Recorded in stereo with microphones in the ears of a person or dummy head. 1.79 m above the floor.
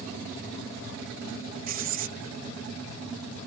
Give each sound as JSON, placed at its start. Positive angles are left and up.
{"t": 1.7, "sound": "writing", "side_deg": -50}